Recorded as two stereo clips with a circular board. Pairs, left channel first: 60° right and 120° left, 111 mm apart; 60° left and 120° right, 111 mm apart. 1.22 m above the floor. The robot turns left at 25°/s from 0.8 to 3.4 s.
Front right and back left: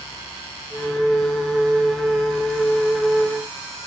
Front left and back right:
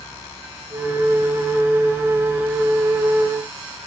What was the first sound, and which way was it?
Only background noise.